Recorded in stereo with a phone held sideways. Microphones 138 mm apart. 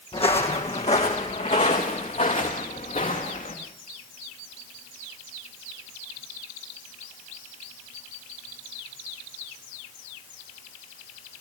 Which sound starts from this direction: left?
Footsteps, at 0.1 s.